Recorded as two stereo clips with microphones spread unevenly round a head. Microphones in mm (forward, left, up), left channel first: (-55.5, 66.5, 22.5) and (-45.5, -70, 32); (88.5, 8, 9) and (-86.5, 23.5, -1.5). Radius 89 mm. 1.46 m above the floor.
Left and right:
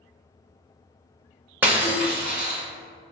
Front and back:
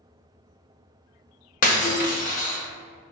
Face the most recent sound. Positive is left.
turn(degrees=-15)